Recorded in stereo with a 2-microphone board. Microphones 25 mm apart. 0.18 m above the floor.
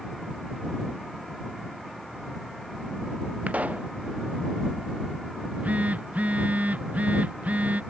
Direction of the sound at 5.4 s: 75° right (ahead or behind).